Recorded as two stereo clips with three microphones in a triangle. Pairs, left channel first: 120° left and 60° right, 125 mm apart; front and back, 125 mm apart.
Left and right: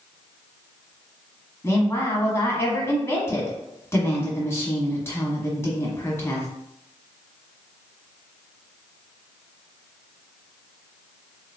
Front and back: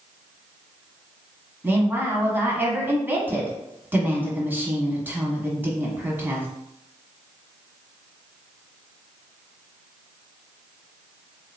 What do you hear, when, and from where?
1.6 s a woman speaking: 135° left, 1.1 m